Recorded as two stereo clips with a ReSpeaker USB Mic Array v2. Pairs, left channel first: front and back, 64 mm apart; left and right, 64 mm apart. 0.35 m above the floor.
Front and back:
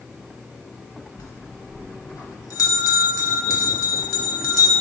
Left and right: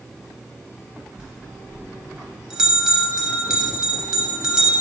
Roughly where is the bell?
Ahead.